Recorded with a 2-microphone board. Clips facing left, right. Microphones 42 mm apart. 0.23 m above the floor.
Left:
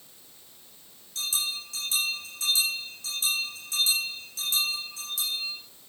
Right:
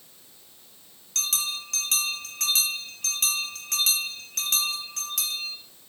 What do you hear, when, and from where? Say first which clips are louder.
1.1 s a bell: right 1 dB; 70° right (ahead or behind), 4 m